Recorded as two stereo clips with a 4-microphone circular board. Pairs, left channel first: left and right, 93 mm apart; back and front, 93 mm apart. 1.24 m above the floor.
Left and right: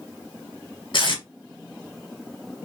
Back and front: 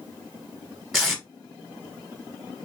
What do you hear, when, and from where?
0.9 s tape being pulled: 90° left, 1.2 m